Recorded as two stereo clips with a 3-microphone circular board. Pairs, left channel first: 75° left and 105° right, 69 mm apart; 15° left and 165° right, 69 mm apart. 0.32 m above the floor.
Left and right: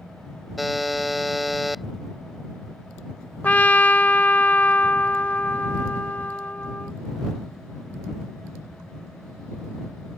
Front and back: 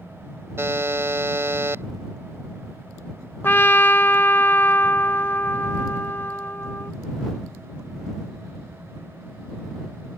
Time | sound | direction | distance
0.6 | a buzzer | 170° left | ?
3.4 | a trumpet | 35° left | ?